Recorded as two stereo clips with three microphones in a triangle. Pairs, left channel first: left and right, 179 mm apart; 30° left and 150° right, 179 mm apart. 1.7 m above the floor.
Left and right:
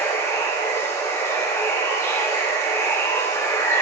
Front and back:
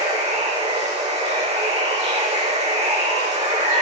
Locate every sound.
0.0 s running water: 165° left, 2.0 m